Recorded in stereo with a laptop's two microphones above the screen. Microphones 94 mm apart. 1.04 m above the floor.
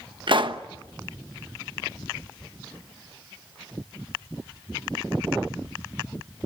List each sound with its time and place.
0.3 s a pop: 55° right (ahead or behind), 1.1 m